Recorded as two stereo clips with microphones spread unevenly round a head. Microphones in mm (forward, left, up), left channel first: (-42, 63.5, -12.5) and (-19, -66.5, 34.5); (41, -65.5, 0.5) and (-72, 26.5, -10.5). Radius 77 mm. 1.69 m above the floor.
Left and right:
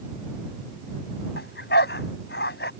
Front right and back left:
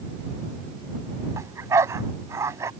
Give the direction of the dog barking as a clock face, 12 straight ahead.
10 o'clock.